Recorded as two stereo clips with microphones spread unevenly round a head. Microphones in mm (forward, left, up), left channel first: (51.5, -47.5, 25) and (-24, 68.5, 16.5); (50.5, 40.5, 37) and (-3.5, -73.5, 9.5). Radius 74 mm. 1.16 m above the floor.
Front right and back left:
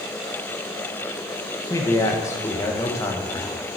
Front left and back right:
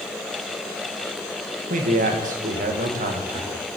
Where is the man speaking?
130° right, 0.9 m.